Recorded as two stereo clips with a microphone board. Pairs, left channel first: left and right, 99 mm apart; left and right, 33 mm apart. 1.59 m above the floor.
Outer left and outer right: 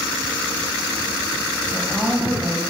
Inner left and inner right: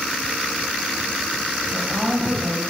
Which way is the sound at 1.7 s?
5° right (ahead or behind).